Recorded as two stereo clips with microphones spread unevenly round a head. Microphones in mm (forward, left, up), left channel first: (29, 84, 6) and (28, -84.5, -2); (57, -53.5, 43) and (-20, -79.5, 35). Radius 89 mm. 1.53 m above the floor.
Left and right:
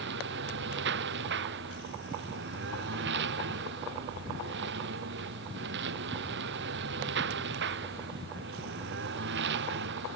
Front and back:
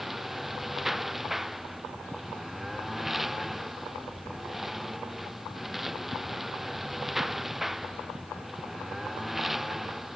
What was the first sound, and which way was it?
A lawn mower, 75° right.